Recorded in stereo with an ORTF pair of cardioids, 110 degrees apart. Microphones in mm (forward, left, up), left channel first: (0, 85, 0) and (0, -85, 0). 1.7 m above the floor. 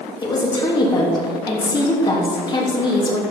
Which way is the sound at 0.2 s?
25° left.